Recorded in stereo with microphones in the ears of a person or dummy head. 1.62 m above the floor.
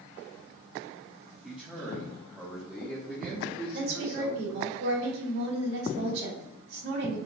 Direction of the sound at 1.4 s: 5° right (ahead or behind).